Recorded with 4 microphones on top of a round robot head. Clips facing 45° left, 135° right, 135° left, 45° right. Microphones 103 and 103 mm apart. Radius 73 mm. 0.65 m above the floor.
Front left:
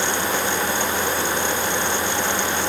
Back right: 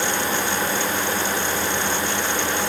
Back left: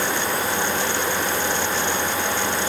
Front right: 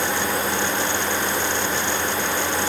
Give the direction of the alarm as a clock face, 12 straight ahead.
I don't hear an alarm.